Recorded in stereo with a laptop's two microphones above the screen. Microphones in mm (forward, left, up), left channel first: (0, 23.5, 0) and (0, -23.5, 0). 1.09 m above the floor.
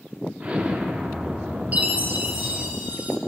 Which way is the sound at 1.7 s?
35° right (ahead or behind).